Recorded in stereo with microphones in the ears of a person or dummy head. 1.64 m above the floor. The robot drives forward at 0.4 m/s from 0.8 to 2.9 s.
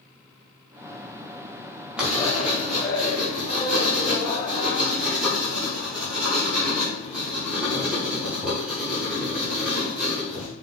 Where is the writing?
5° right (ahead or behind), 1.2 m.